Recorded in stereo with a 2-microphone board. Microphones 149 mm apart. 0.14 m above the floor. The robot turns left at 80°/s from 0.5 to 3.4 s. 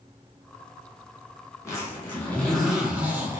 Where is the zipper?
20° left (ahead or behind), 0.9 m; by 3.4 s 20° right (ahead or behind), 0.9 m.